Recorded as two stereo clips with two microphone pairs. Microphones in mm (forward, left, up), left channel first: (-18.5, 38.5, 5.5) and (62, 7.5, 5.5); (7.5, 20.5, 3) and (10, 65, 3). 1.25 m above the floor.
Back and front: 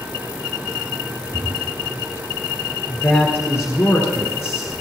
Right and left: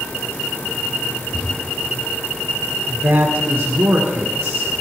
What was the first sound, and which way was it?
A drawer, 50° right.